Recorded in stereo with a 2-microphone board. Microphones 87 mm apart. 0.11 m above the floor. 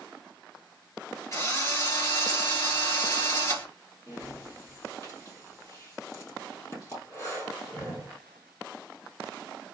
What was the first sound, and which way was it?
A drill, 35° left (ahead or behind).